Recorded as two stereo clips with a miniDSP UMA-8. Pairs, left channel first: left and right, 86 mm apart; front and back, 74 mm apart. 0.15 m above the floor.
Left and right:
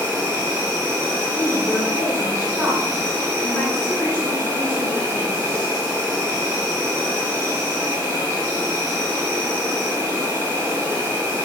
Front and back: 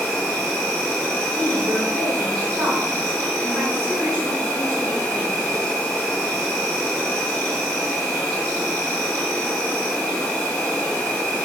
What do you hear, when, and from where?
0.0 s an insect: 70° right, 1.2 m
1.3 s a woman speaking: 135° right, 1.1 m